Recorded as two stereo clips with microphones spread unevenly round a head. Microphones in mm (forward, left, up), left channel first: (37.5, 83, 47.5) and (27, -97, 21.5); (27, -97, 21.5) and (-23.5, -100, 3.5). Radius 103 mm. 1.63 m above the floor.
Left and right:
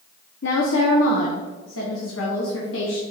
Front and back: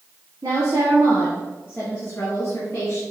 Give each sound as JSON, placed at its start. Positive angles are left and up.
{"t": 0.4, "sound": "a woman speaking", "azimuth_deg": 120, "distance_m": 1.0}